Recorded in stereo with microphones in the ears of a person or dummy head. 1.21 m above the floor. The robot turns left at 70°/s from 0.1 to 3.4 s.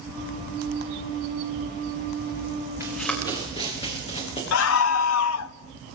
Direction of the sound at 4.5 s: 75° left (ahead or behind).